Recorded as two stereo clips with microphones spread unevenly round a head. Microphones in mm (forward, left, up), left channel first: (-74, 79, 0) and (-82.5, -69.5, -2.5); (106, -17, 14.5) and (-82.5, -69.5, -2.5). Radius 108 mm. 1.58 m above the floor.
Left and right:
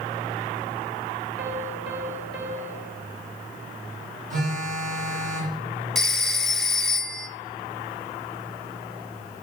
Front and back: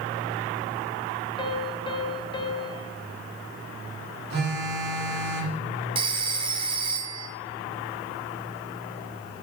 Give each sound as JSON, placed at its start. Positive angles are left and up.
{"t": 1.4, "sound": "a piano", "azimuth_deg": -50, "distance_m": 1.0}
{"t": 4.3, "sound": "a phone buzzing", "azimuth_deg": -125, "distance_m": 3.0}
{"t": 6.0, "sound": "a phone ringing", "azimuth_deg": 165, "distance_m": 0.6}